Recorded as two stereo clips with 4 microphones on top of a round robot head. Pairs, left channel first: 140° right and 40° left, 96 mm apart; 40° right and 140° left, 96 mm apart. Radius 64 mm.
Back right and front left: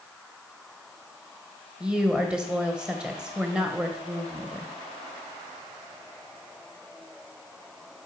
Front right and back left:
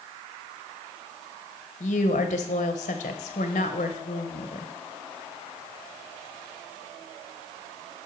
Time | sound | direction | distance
1.8 | a woman speaking | 40° right | 1.0 m